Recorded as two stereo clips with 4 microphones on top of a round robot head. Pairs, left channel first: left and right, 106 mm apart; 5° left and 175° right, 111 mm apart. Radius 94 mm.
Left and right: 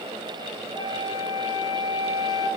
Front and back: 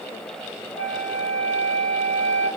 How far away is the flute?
About 1.1 m.